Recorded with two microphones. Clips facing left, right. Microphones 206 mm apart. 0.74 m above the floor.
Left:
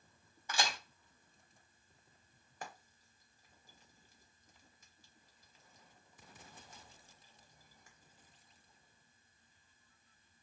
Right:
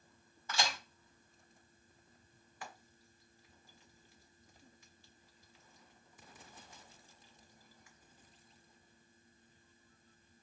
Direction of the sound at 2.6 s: 40° left (ahead or behind).